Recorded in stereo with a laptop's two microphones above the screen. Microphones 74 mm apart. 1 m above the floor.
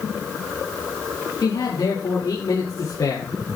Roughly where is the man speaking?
Left.